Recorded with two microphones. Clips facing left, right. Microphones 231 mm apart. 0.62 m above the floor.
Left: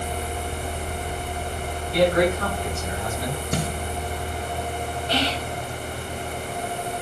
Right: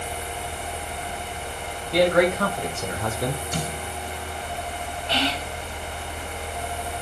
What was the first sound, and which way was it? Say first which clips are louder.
A man speaking: right 1 dB; 70° right (ahead or behind).